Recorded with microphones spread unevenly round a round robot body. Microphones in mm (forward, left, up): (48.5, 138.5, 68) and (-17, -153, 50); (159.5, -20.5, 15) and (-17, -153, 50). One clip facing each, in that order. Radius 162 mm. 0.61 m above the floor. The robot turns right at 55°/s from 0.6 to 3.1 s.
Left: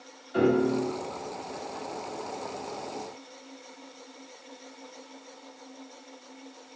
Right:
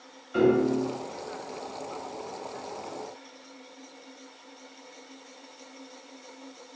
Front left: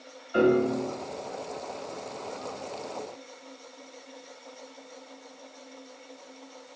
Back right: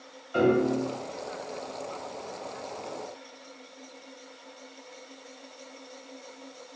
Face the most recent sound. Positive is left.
turn(degrees=105)